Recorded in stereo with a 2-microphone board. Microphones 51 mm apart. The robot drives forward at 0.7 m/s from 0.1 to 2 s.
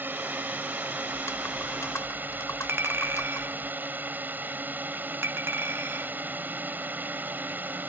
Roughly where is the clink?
Right.